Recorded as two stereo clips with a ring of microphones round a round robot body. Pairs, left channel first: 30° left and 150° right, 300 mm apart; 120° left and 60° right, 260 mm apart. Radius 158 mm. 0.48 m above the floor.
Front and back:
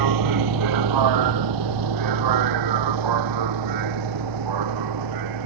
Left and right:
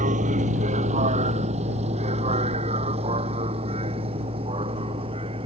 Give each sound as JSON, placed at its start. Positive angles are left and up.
{"t": 0.0, "sound": "a vehicle", "azimuth_deg": -130}